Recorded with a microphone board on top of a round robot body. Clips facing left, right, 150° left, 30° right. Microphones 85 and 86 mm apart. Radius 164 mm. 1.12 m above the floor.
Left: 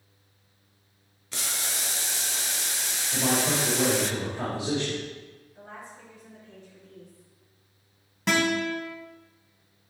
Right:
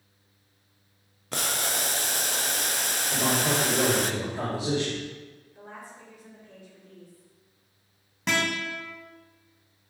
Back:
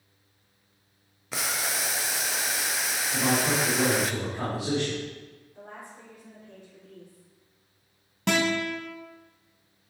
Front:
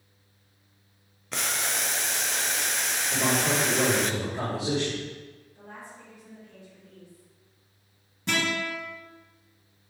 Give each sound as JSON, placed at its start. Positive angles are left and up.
{"t": 1.3, "sound": "boiling", "azimuth_deg": -125, "distance_m": 0.7}
{"t": 3.1, "sound": "a man speaking", "azimuth_deg": -90, "distance_m": 4.5}
{"t": 5.5, "sound": "a woman speaking", "azimuth_deg": -165, "distance_m": 3.5}
{"t": 8.3, "sound": "a guitar", "azimuth_deg": 180, "distance_m": 2.5}